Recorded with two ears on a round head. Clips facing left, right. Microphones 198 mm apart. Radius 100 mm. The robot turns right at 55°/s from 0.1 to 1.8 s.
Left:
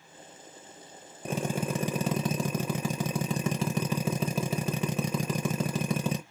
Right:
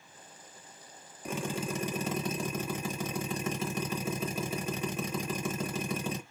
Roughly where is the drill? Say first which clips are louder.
Left 4 dB; ahead left.